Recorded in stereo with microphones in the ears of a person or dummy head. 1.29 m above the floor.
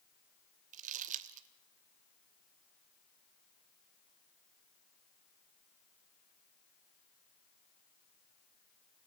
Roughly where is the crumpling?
Right.